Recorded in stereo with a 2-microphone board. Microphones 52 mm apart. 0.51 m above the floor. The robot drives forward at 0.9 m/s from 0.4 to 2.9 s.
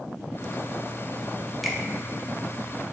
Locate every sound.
1.6 s a finger snap: centre (ahead or behind), 0.9 m